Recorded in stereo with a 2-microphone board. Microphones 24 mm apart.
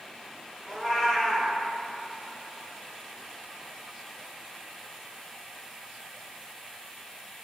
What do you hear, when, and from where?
0.7 s a cat meowing: 15° left (ahead or behind), 0.8 m